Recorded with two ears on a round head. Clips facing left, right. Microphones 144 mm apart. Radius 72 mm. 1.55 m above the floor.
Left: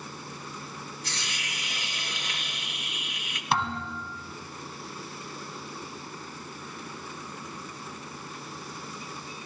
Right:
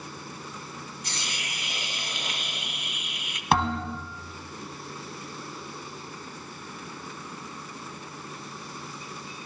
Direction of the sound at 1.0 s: 15° right (ahead or behind).